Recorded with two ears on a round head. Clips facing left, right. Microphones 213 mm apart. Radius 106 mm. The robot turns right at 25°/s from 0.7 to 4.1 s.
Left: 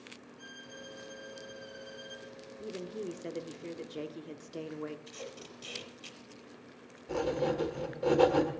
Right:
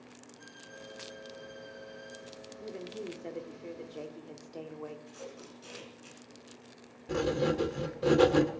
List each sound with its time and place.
0.4 s a violin: 25° left, 3.5 m; by 2.3 s 65° left, 3.5 m
2.6 s a woman speaking: 25° left, 0.9 m; by 5.0 s 60° left, 0.9 m
5.1 s tape being pulled: 60° left (ahead or behind), 4 m
7.1 s writing: 25° right (ahead or behind), 1.3 m